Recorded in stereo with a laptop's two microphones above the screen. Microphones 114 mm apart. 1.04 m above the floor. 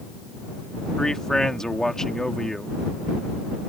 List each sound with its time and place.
1.0 s a man speaking: 5° left (ahead or behind)